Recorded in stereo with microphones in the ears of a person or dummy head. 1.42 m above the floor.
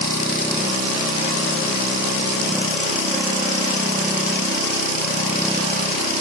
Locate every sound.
Only background noise.